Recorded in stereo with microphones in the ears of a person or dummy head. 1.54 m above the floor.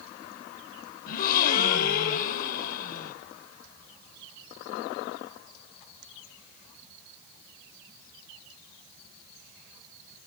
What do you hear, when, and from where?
1.1 s a gasp: 50° left (ahead or behind), 0.9 m